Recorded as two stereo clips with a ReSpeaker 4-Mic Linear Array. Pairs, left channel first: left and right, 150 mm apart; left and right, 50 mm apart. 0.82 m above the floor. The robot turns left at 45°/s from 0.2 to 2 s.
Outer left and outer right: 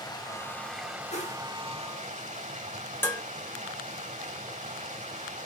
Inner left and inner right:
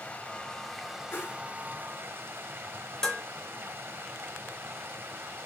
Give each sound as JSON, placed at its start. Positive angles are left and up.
{"t": 0.0, "sound": "running water", "azimuth_deg": 30, "distance_m": 1.3}
{"t": 1.1, "sound": "a whoosh", "side_deg": 50, "distance_m": 1.4}
{"t": 3.0, "sound": "dishes clattering", "side_deg": 15, "distance_m": 1.8}